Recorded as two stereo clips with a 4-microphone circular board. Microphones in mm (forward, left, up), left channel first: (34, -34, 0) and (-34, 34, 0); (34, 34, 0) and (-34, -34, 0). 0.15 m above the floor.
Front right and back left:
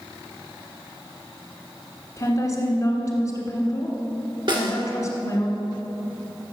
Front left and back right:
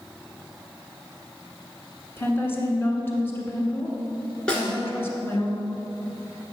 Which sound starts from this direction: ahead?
A woman speaking, at 2.2 s.